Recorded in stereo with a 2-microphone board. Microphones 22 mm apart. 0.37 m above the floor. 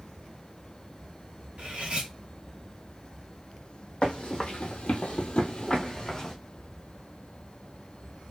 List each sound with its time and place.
1.6 s cutlery clinking: 65° right (ahead or behind), 1.2 m
4.0 s running footsteps: 45° left (ahead or behind), 0.9 m; by 6.3 s 25° left (ahead or behind), 0.9 m